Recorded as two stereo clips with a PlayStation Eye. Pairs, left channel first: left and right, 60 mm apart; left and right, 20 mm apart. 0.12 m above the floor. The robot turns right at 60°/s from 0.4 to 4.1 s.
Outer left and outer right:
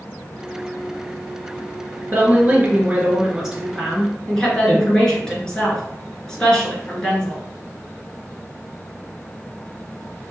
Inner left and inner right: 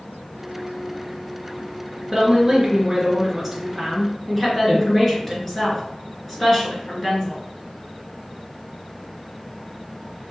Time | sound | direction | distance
2.1 | a woman speaking | 95° right | 1.7 m